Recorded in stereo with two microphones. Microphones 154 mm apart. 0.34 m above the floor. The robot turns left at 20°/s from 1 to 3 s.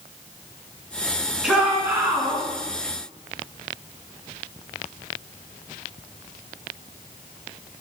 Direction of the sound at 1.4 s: 5° right (ahead or behind).